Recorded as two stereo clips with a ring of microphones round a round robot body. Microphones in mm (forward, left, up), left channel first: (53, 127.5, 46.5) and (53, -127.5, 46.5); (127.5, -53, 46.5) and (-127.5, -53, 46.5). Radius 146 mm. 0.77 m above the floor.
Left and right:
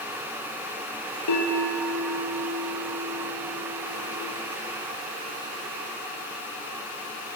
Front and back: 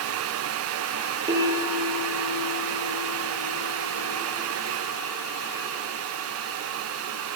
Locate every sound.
1.3 s a bell: 105° left, 8.5 m